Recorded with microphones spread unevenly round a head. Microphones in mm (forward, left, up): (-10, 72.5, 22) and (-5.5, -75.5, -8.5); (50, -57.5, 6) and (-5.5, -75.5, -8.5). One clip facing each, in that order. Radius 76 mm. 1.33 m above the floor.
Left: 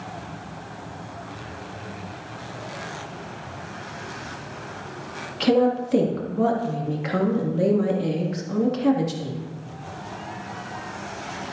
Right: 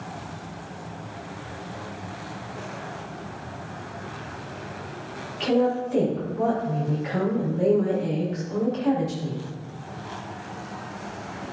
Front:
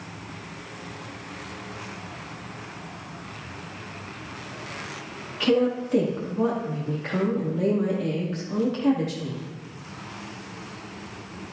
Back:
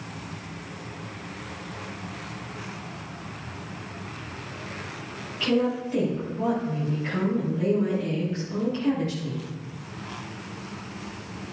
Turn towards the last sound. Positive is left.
turn(degrees=65)